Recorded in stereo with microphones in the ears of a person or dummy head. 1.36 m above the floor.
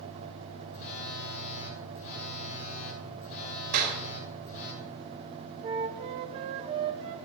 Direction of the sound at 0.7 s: 50° left (ahead or behind).